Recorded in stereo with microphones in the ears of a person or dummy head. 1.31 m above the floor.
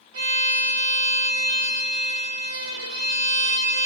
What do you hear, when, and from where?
0.1 s a violin: 65° right (ahead or behind), 1.2 m